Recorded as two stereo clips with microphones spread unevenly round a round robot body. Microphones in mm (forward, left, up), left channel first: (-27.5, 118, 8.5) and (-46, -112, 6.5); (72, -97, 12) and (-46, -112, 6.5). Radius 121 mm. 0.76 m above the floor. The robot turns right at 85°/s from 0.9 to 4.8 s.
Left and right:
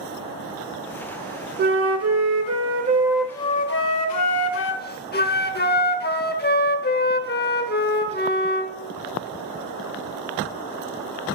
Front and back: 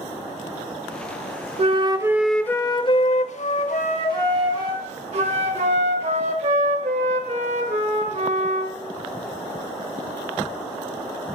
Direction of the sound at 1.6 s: 140° right.